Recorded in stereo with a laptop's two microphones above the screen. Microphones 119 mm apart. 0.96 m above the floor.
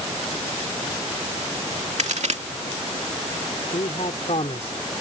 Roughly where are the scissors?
No scissors in this recording.